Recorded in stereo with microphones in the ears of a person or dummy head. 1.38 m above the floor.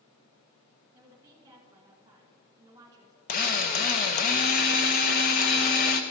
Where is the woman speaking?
15° right (ahead or behind), 1.6 m.